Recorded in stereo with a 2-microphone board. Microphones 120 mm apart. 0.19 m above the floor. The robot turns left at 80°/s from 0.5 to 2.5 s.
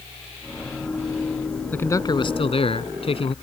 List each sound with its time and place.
1.7 s a man speaking: 165° left; by 3.4 s 100° left